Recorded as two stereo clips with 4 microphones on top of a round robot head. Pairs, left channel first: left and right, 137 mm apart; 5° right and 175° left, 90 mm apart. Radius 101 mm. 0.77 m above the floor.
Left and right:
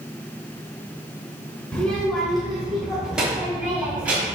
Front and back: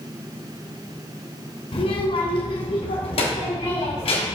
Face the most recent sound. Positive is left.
turn(degrees=-10)